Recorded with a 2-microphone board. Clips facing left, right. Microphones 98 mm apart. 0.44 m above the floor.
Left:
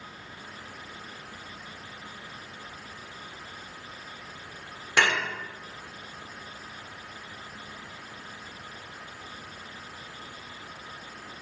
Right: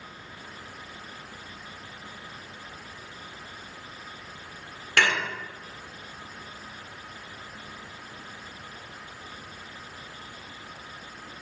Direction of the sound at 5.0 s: 15° left (ahead or behind).